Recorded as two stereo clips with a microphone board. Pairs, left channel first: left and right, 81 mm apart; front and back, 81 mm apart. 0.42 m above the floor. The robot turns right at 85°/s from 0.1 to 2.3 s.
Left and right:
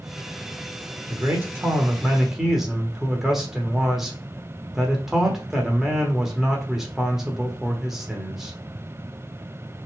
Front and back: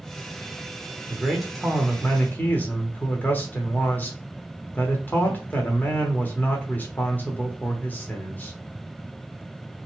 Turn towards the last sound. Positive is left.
turn(degrees=-15)